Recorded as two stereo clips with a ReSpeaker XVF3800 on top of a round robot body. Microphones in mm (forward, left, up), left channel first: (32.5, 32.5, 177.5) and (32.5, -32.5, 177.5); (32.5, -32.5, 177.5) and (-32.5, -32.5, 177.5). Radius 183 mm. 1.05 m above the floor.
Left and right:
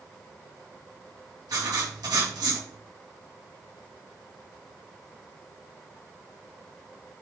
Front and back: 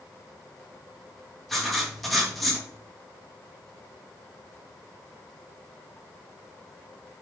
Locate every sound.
1.5 s writing: 90° right, 2.5 m